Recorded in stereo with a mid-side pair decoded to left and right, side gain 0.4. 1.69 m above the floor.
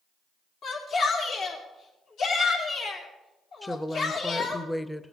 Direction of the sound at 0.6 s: 70° left.